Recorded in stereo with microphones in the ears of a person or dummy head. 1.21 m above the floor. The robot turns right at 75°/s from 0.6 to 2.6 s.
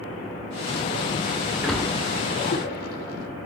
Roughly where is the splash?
Centre.